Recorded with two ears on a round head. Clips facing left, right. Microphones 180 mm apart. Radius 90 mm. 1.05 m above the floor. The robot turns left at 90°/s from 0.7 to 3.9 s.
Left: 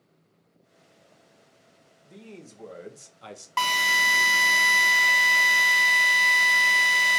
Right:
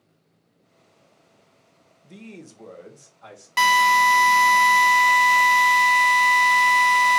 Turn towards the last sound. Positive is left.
turn(degrees=5)  # may be behind; listen again after turning